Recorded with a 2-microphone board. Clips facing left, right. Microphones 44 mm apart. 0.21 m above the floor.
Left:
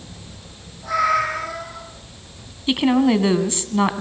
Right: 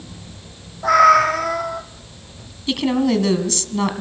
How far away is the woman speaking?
About 2 m.